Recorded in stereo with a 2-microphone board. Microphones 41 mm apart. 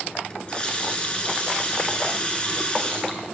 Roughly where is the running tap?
Left.